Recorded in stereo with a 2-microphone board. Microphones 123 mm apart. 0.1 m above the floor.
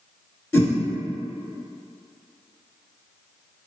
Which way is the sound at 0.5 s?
15° left (ahead or behind).